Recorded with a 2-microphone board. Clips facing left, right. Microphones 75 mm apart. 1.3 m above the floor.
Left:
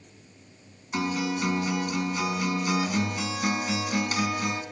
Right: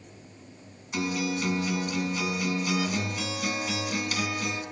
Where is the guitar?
40° left (ahead or behind), 5 m.